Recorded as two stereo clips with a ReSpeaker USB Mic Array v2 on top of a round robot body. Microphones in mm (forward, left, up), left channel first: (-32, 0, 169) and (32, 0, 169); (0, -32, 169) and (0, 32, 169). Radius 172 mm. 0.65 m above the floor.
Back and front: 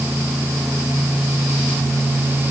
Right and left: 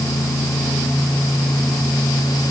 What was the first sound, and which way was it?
Only background noise.